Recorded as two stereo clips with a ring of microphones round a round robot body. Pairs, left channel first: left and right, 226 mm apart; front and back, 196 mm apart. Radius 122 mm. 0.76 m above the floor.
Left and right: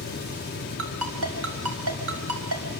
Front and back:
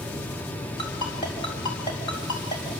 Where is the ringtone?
70° right, 4 m.